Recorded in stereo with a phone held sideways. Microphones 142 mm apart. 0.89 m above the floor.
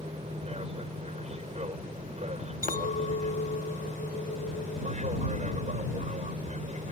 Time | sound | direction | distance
0.0 | an aircraft | 45° right (ahead or behind) | ?
2.6 | a clink | 70° left (ahead or behind) | ?